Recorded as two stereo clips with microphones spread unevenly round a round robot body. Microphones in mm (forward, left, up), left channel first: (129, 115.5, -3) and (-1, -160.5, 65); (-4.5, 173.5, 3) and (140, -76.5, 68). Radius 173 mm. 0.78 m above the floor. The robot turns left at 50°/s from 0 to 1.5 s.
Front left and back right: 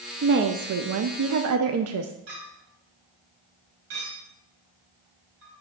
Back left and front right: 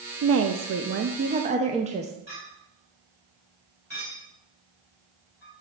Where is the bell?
I don't hear a bell.